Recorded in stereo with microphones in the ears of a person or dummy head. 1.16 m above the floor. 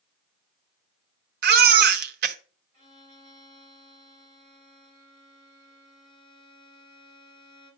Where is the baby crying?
60° right (ahead or behind), 0.9 m.